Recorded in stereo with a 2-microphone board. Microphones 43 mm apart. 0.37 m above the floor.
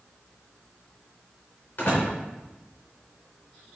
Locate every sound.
1.8 s a door slam: 45° left (ahead or behind), 3.5 m